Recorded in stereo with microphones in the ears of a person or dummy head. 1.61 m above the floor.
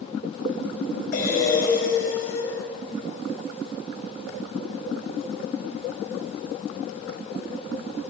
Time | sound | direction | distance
1.1 | breathing | 55° left (ahead or behind) | 6 m